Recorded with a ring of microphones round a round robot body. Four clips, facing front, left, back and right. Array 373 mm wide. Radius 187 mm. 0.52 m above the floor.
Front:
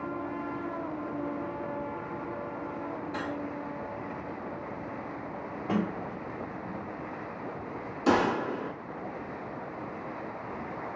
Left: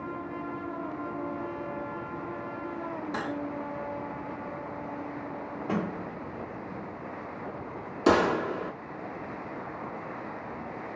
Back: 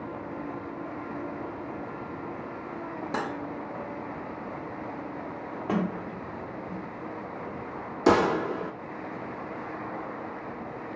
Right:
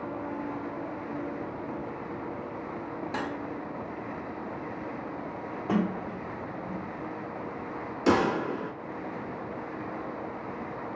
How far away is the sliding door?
About 1.3 m.